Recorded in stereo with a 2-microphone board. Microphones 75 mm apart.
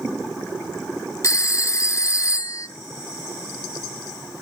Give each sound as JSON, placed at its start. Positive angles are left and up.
{"t": 1.2, "sound": "a phone ringing", "side_deg": 40, "distance_m": 0.6}